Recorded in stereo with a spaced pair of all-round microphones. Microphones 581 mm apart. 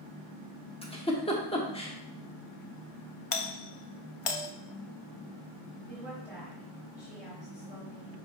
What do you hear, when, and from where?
0.8 s a giggle: 10° left (ahead or behind), 1.2 m
3.3 s a doorbell: 65° left (ahead or behind), 0.7 m
5.9 s a woman speaking: 15° left (ahead or behind), 4 m